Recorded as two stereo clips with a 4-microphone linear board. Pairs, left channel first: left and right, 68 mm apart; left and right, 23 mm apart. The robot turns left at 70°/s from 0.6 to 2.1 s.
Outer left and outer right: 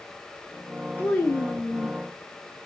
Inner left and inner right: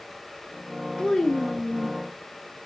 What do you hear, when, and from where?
1.0 s a child speaking: 25° left (ahead or behind), 0.7 m; by 2.0 s centre (ahead or behind), 0.7 m